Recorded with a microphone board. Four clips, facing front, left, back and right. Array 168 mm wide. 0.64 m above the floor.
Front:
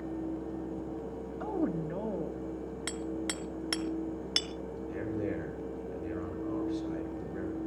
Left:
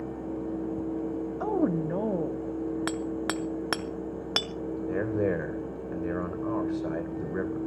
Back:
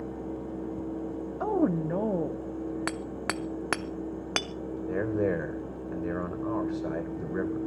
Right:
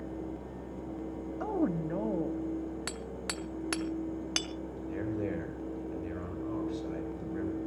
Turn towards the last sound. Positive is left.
turn(degrees=135)